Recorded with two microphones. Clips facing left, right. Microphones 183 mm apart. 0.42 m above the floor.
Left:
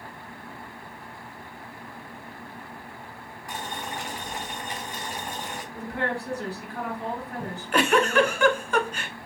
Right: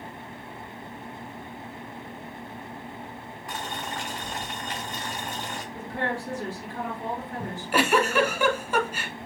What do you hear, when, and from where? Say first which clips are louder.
3.5 s boiling: even; 15° left (ahead or behind), 3 m
5.7 s a woman speaking: left 1 dB; 65° left (ahead or behind), 2.5 m
7.4 s a giggle: even; 5° right (ahead or behind), 0.9 m